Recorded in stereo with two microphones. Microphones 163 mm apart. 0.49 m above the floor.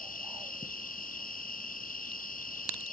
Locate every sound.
0.0 s an insect: 60° left (ahead or behind), 0.8 m